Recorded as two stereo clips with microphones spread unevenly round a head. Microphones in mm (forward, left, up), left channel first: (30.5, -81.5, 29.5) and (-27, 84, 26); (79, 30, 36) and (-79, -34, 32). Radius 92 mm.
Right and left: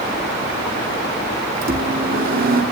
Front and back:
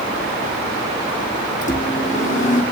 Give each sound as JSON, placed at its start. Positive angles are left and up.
{"t": 1.6, "sound": "a microwave", "azimuth_deg": 70, "distance_m": 3.0}